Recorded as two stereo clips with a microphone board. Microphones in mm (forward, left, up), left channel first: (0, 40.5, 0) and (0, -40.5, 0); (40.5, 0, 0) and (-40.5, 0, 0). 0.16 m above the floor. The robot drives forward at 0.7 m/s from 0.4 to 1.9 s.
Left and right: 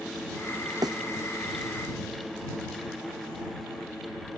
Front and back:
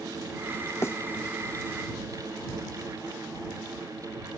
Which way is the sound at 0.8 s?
55° right.